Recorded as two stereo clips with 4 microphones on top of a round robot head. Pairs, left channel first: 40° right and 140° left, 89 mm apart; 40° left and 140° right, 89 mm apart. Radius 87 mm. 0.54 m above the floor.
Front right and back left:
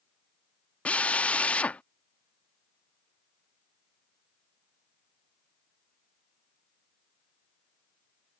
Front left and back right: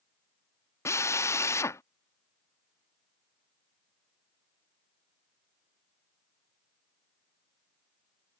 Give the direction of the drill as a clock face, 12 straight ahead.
11 o'clock.